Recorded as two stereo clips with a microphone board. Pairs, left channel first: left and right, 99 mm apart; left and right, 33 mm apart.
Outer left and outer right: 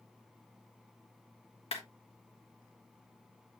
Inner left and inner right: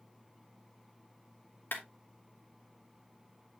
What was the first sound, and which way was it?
A clap, 70° left (ahead or behind).